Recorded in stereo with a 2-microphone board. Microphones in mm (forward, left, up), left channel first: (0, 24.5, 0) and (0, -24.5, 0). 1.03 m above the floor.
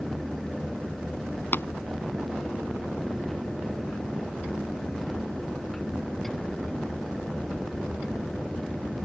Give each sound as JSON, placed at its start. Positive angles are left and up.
{"t": 1.5, "sound": "tapping", "side_deg": 45}